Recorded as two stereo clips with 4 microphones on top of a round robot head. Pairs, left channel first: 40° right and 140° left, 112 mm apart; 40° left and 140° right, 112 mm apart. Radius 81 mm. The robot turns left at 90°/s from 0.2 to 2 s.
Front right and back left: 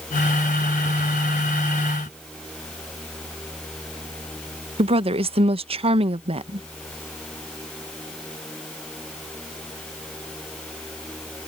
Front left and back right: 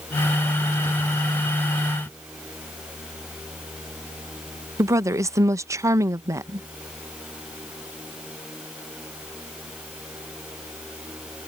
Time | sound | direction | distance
4.8 | a woman speaking | 160° left | ?